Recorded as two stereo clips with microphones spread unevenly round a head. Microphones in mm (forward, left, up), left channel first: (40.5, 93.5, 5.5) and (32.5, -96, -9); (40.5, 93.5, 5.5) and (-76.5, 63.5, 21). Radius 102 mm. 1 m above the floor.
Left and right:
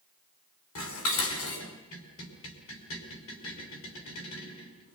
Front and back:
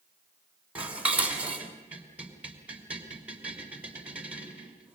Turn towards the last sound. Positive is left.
turn(degrees=115)